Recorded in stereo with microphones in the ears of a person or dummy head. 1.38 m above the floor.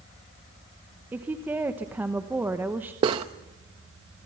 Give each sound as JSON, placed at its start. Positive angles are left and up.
{"t": 1.1, "sound": "a woman speaking", "side_deg": -10, "distance_m": 1.1}
{"t": 3.0, "sound": "cutlery clinking", "side_deg": -30, "distance_m": 0.7}